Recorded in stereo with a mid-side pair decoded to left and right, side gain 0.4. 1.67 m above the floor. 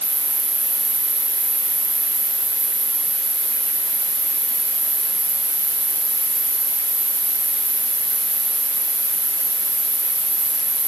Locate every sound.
0.0 s an insect: 30° right, 9 m